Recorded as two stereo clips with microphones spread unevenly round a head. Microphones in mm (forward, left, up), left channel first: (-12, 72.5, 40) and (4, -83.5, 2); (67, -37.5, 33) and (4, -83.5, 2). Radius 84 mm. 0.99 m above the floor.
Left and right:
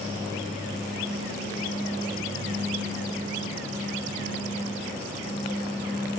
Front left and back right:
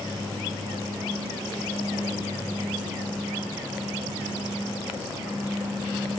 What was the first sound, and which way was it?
Only background noise.